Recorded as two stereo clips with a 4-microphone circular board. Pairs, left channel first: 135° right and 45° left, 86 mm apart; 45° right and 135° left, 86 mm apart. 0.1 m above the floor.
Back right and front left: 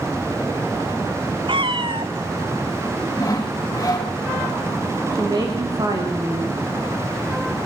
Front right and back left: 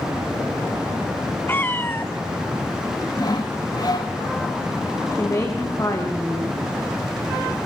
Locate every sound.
1.5 s a cat meowing: 20° left, 1.5 m
3.2 s sawing: 80° right, 4.5 m
5.1 s a woman speaking: 5° left, 7 m